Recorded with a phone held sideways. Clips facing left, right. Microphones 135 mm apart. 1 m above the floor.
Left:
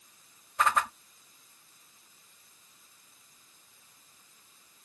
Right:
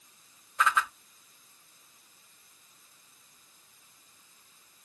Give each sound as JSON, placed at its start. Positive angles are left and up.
{"t": 0.6, "sound": "a whoosh", "side_deg": 45}